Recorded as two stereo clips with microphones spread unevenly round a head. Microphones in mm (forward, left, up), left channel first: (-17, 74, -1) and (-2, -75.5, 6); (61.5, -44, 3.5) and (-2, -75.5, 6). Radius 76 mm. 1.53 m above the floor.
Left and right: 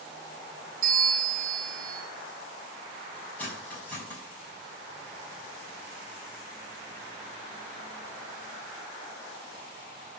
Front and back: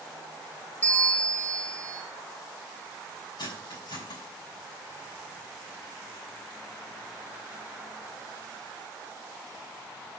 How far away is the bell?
About 3 m.